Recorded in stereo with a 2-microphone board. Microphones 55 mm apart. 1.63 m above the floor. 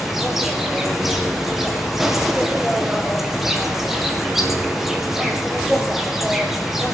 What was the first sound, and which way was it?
An insect, 5° right (ahead or behind).